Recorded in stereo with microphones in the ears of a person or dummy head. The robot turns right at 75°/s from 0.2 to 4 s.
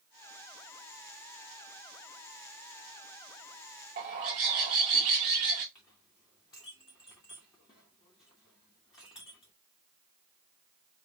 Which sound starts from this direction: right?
A bird, at 4.0 s.